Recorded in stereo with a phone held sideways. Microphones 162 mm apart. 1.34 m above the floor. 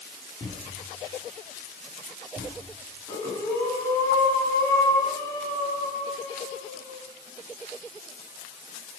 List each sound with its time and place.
0.4 s a thud: 20° left (ahead or behind), 4 m
3.1 s breathing: 20° left (ahead or behind), 3 m